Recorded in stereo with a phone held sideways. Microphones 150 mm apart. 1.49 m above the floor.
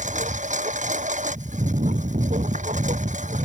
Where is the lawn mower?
55° right (ahead or behind).